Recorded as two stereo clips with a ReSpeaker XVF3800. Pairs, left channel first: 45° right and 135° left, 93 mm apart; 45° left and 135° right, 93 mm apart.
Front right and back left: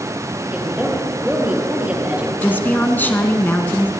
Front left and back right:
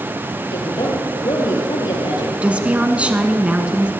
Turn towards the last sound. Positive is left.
turn(degrees=-80)